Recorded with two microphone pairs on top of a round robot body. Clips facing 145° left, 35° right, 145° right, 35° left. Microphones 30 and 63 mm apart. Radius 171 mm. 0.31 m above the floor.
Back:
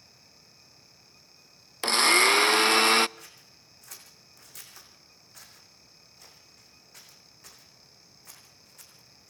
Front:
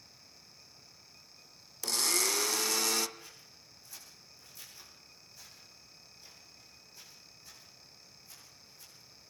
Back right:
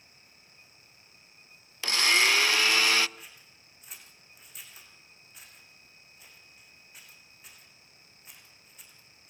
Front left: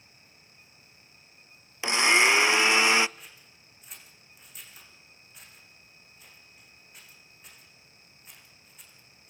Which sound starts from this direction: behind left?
Scissors, at 3.2 s.